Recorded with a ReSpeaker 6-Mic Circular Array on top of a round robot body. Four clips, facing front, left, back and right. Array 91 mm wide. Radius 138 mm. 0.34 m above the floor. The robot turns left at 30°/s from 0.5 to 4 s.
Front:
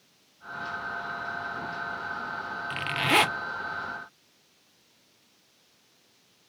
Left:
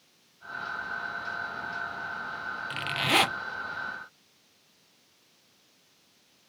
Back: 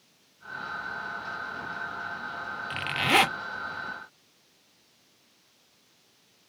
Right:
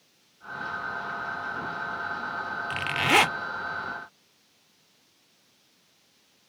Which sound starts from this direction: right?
A zipper, at 2.7 s.